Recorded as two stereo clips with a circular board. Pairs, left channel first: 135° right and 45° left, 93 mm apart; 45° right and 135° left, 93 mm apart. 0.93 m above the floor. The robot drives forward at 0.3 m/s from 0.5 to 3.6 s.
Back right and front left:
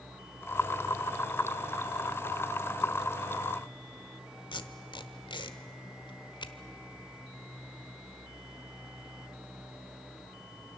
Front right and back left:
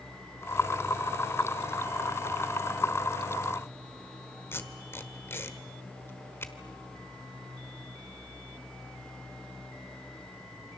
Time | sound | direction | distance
4.5 | tape being pulled | 110° right | 1.2 m